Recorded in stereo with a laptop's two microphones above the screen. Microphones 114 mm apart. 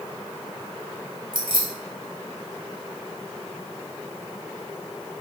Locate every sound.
1.3 s keys jangling: 45° right (ahead or behind), 0.8 m